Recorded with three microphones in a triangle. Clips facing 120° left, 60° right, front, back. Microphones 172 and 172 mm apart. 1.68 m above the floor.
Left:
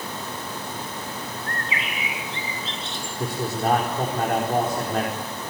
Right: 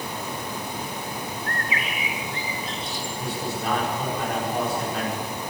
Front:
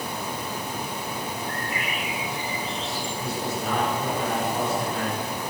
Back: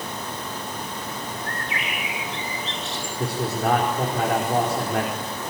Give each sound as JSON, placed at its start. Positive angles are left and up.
{"t": 1.5, "sound": "a bird", "azimuth_deg": -175, "distance_m": 7.5}
{"t": 3.2, "sound": "a man speaking", "azimuth_deg": 160, "distance_m": 5.5}